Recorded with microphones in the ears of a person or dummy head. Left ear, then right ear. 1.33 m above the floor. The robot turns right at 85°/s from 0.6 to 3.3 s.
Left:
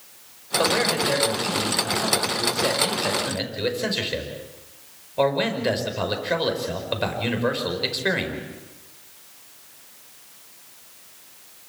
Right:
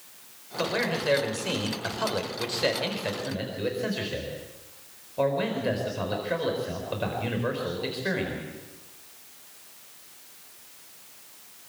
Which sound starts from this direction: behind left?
A man speaking, at 0.6 s.